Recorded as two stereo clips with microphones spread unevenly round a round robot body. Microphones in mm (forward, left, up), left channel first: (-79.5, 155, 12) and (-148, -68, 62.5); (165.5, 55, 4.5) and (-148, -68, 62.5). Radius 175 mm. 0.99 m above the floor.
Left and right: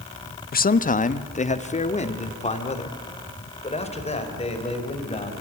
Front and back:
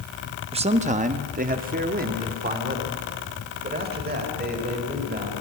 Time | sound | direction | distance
0.5 | a man speaking | 125° left | 0.8 m